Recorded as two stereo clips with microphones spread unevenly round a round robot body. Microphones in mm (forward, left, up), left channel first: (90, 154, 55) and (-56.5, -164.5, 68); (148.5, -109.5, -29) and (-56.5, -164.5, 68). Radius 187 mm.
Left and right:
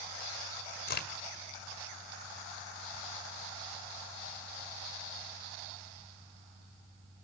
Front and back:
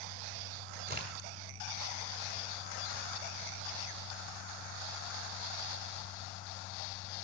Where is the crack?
125° left, 1.6 m.